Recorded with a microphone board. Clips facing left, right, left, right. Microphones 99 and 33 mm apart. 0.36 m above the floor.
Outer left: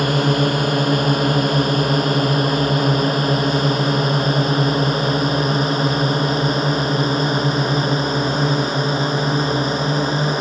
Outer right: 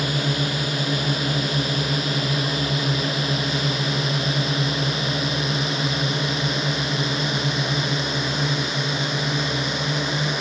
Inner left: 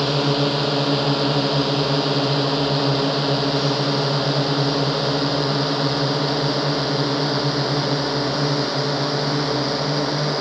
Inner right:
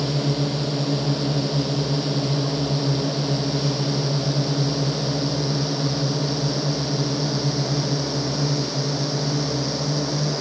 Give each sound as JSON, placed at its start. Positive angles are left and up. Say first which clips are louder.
{"t": 0.0, "sound": "a drone", "louder": "outer left 7 dB, inner left 4 dB", "side_deg": 55}